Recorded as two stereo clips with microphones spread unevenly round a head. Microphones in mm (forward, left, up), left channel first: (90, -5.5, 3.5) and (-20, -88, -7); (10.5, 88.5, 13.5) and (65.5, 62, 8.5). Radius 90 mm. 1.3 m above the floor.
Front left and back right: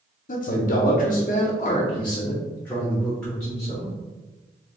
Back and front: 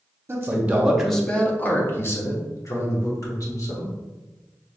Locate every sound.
0.3 s a man speaking: 20° left, 0.9 m; by 3.9 s 130° left, 2 m